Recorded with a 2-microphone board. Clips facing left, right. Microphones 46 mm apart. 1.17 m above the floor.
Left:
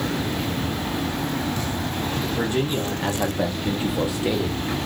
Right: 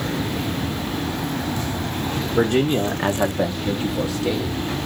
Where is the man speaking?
70° right (ahead or behind), 1.0 m; by 4.8 s 30° left (ahead or behind), 1.9 m.